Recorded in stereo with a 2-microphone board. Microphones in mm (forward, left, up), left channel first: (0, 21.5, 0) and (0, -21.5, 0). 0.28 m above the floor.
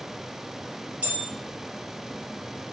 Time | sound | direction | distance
1.0 | a bell | 35° right (ahead or behind) | 3 m